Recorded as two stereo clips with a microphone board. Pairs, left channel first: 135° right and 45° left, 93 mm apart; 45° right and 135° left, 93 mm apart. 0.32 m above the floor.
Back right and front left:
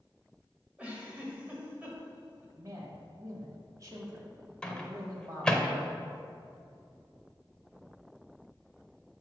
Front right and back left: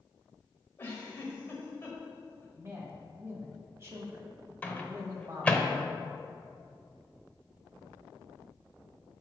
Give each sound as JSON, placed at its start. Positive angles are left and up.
{"t": 0.8, "sound": "a giggle", "azimuth_deg": -10, "distance_m": 1.5}
{"t": 2.5, "sound": "a man speaking", "azimuth_deg": 85, "distance_m": 1.8}
{"t": 4.6, "sound": "a microwave", "azimuth_deg": -75, "distance_m": 0.8}